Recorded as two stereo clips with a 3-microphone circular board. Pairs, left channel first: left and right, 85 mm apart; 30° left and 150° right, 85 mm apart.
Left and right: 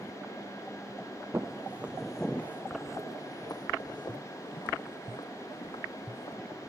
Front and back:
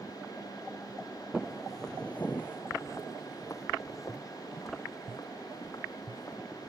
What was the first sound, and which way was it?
Footsteps, 75° right.